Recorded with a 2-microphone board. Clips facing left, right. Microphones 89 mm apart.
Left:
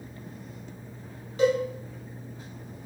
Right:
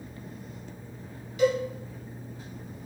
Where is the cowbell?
40° left (ahead or behind), 1.3 m.